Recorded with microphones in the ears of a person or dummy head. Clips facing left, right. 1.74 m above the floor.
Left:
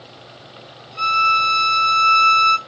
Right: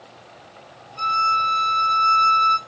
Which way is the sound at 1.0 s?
65° left (ahead or behind).